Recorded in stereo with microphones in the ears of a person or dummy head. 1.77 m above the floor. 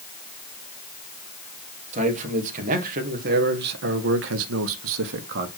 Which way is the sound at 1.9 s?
40° right (ahead or behind).